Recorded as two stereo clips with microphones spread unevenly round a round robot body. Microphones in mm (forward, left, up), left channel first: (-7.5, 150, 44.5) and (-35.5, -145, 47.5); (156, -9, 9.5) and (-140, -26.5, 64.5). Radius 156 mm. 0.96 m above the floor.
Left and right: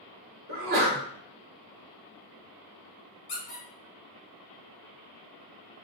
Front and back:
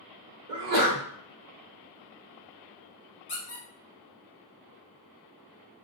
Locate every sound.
0.5 s a sneeze: 145° right, 1.0 m
3.3 s a squeak: 75° left, 1.3 m